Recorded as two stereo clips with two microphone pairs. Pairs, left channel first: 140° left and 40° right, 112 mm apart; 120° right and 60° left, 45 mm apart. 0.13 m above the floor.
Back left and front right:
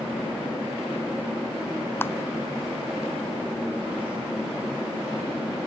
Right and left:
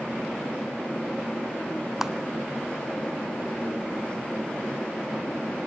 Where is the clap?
130° left, 0.9 m.